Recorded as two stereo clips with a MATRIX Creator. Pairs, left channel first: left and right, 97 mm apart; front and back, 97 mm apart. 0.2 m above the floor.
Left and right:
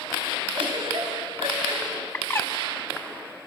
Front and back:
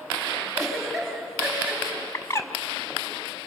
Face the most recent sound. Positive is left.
turn(degrees=40)